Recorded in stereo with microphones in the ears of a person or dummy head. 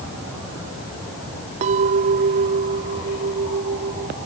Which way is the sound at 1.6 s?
35° right (ahead or behind).